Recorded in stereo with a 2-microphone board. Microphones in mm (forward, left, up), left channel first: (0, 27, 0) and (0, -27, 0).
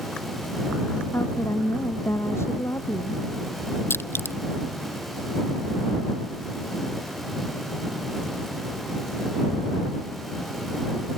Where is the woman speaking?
55° left (ahead or behind).